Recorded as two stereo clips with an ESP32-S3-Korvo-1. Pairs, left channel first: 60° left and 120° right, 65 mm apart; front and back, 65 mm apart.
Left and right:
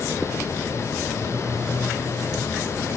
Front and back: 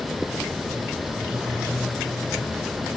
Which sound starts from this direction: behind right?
A phone buzzing, at 1.1 s.